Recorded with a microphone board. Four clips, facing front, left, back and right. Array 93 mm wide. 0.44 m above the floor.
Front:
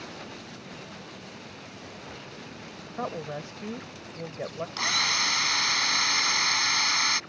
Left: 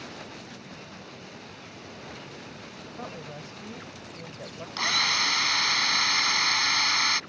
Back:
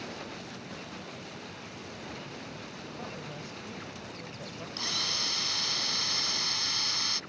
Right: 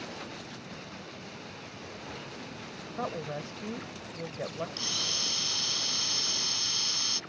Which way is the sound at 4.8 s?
55° left.